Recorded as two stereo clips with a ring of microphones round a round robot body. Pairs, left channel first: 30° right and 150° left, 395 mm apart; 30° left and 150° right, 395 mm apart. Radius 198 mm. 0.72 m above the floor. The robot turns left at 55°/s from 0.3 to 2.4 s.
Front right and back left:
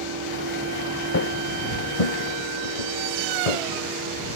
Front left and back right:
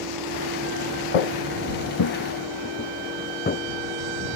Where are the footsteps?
30° left; by 3.6 s 40° right.